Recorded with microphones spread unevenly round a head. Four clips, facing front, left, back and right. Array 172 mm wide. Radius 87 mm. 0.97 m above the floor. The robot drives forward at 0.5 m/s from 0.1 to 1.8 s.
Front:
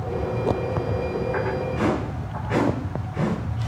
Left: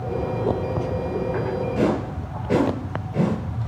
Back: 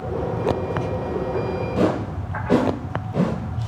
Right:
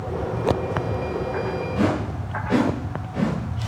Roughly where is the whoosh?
Behind.